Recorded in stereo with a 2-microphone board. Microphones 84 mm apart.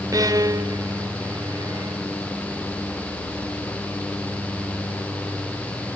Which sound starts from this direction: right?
A violin, at 0.1 s.